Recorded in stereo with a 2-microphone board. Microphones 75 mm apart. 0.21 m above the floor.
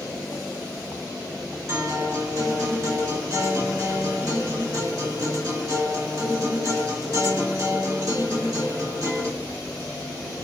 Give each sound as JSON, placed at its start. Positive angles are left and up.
{"t": 1.7, "sound": "a guitar", "side_deg": -45, "distance_m": 1.5}